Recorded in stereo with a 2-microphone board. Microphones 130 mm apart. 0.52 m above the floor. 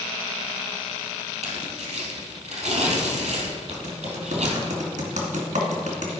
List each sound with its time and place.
1.4 s tearing paper: 70° right (ahead or behind), 2.5 m
3.7 s typing on a keyboard: 80° right, 2 m